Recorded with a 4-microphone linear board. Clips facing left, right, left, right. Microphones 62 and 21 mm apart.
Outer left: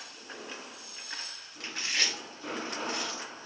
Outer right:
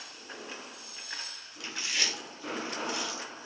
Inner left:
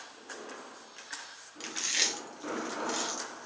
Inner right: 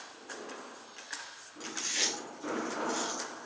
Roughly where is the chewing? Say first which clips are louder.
Outer left 1 dB, inner left 2 dB; left.